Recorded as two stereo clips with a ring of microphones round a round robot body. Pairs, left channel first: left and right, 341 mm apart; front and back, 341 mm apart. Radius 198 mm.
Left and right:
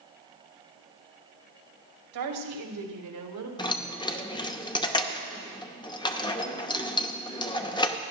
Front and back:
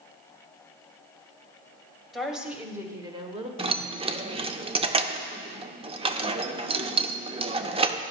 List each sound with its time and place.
2.1 s a woman speaking: 90° right, 2 m; by 3.5 s 115° right, 1.6 m
3.6 s keys jangling: 140° left, 0.7 m